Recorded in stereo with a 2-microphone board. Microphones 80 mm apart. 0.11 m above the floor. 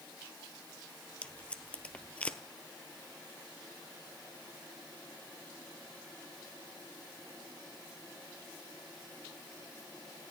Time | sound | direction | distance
1.2 | tape being pulled | 15° left (ahead or behind) | 0.8 m